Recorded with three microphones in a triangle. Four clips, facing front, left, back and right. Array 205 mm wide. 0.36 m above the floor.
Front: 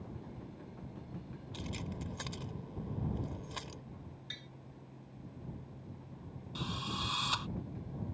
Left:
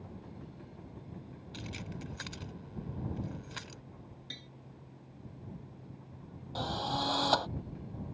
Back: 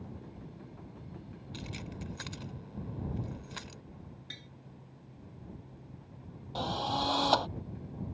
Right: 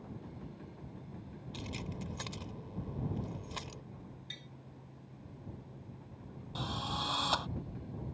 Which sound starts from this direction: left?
Tapping, at 4.3 s.